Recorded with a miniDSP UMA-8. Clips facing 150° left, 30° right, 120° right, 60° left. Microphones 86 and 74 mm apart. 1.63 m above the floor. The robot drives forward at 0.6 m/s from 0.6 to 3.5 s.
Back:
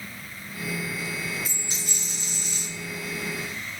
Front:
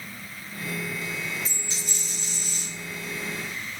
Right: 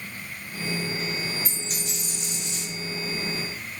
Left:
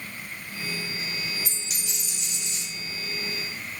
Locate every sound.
1.4 s a dropped coin: 130° right, 1.8 m; by 2.6 s 150° right, 2 m